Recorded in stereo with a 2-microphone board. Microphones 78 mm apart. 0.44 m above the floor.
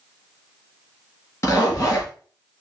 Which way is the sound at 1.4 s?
35° left (ahead or behind).